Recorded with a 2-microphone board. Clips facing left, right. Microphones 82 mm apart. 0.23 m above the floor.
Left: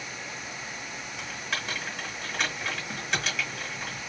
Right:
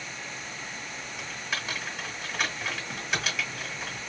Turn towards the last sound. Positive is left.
turn(degrees=0)  # may be behind; listen again after turning